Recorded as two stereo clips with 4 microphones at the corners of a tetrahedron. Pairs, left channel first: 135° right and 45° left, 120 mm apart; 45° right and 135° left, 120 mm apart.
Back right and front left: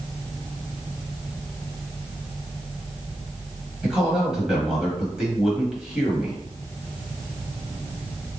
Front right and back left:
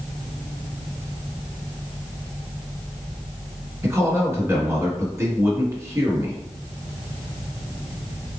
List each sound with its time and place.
3.8 s a man speaking: 125° left, 1.2 m